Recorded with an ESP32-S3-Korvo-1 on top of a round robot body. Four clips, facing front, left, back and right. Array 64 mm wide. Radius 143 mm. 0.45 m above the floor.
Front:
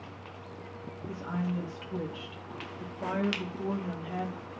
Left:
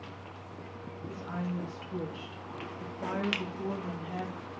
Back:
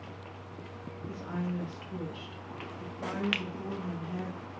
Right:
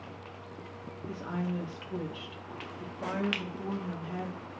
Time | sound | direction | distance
1.1 | a woman speaking | 85° right | 1.7 m
3.3 | a finger snap | 175° right | 0.8 m